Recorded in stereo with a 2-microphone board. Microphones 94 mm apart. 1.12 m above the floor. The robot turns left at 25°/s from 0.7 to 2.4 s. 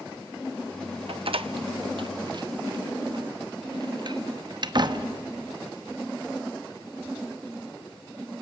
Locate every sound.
1.1 s a door slam: 75° right (ahead or behind), 0.9 m; by 5.1 s 50° right (ahead or behind), 0.9 m